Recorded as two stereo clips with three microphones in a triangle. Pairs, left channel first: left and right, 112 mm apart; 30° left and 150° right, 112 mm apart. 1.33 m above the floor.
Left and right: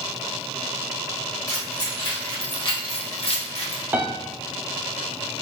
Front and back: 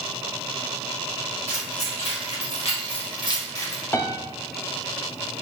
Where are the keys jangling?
30° left, 1.9 m; by 3.8 s 105° left, 0.8 m.